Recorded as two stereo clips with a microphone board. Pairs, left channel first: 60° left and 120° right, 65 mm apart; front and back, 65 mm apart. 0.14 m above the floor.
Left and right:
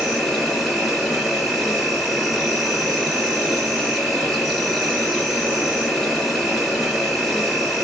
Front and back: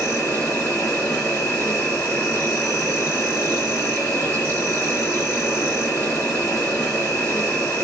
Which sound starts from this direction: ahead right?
An insect, at 0.0 s.